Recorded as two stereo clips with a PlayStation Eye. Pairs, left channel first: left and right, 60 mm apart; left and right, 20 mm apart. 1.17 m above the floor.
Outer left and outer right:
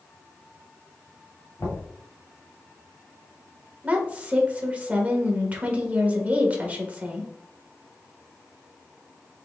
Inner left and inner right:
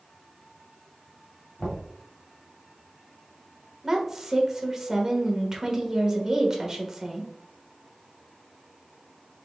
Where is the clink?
No clink in this recording.